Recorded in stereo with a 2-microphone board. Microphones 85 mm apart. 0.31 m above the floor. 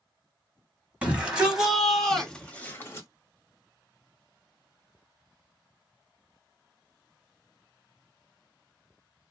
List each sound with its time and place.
1.0 s a shout: 15° right (ahead or behind), 1.9 m; by 3.1 s 30° left (ahead or behind), 1.2 m